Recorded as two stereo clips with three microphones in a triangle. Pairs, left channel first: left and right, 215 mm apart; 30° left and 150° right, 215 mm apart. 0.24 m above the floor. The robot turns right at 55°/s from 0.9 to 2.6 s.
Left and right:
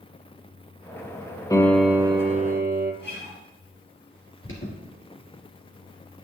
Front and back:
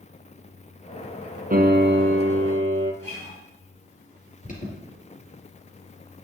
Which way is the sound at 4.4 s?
80° left.